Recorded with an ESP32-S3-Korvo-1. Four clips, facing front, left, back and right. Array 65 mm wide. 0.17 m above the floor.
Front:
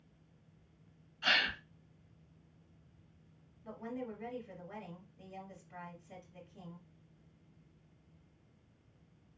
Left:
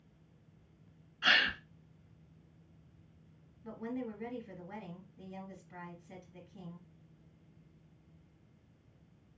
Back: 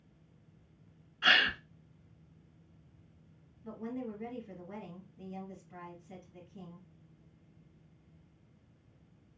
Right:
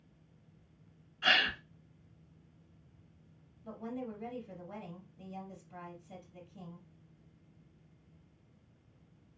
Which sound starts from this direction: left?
A woman speaking, at 3.6 s.